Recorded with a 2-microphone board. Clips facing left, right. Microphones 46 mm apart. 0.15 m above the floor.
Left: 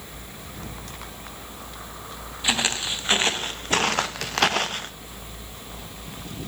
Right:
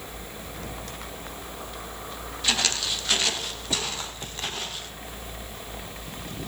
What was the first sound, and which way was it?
Footsteps, 20° left (ahead or behind).